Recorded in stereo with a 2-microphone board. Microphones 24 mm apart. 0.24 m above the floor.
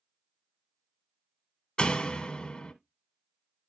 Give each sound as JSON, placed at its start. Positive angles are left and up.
{"t": 1.8, "sound": "a door slam", "side_deg": 35, "distance_m": 1.3}